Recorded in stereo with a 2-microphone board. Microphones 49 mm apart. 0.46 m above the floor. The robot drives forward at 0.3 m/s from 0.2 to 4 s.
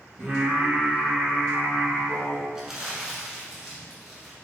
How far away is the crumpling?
About 1.1 m.